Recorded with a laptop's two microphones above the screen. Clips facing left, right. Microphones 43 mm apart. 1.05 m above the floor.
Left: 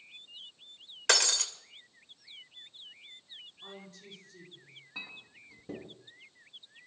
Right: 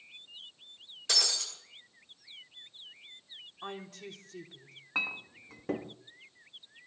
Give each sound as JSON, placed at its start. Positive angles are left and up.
{"t": 1.1, "sound": "breaking glass", "side_deg": 75, "distance_m": 2.0}
{"t": 3.6, "sound": "a woman speaking", "side_deg": -80, "distance_m": 3.0}
{"t": 5.0, "sound": "a clink", "side_deg": -70, "distance_m": 1.0}